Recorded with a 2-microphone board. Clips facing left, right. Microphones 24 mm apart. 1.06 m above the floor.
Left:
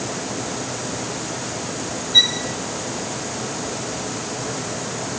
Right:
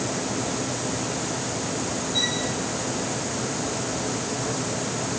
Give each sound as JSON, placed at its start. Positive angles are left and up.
{"t": 2.1, "sound": "a violin", "side_deg": 60, "distance_m": 2.5}